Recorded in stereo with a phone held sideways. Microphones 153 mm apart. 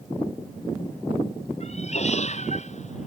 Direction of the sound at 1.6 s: 45° left (ahead or behind).